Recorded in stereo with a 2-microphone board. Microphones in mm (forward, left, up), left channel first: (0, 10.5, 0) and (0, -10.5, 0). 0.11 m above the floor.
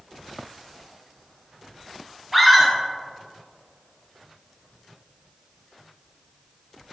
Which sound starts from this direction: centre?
A scream, at 2.3 s.